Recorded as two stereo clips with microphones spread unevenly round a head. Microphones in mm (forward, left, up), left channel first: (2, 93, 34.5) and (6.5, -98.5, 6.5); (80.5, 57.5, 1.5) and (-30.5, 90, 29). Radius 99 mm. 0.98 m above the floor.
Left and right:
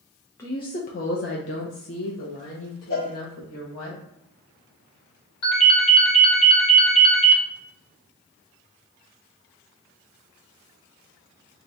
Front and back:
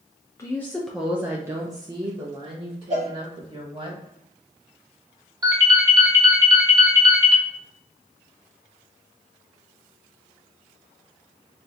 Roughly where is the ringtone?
Left.